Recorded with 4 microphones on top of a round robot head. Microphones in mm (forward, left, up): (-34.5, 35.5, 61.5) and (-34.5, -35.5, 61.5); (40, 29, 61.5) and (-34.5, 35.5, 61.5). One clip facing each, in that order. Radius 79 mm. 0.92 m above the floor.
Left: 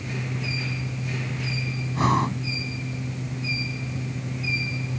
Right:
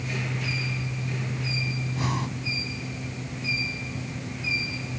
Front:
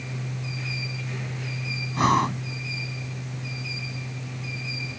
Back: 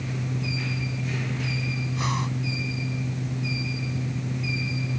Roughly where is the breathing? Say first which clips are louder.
Left 10 dB, front 10 dB; ahead left.